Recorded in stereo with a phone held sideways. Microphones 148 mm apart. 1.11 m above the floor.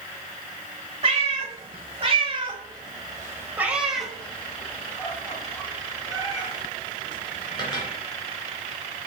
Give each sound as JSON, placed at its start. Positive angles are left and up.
{"t": 1.0, "sound": "a cat meowing", "side_deg": -45, "distance_m": 1.7}